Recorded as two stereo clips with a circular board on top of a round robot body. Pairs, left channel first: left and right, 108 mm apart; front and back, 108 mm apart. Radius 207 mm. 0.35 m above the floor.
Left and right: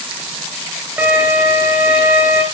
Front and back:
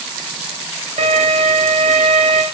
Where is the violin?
165° right, 2.5 m.